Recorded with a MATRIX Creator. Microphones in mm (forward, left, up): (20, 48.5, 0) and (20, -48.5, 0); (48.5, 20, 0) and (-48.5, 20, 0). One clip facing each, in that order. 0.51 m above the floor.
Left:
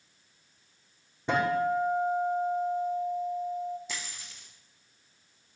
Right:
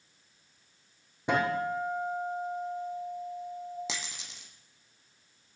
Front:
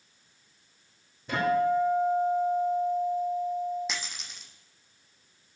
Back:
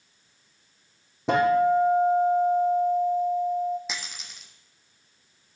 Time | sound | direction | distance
1.3 | a guitar | 165° right | 7 m
3.9 | a dropped coin | 90° right | 3 m